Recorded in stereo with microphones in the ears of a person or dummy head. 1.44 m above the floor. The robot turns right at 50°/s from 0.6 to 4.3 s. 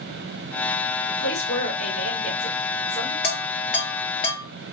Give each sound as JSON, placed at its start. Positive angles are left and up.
{"t": 1.1, "sound": "a woman speaking", "azimuth_deg": 50, "distance_m": 2.5}
{"t": 3.2, "sound": "dishes clattering", "side_deg": 60, "distance_m": 0.8}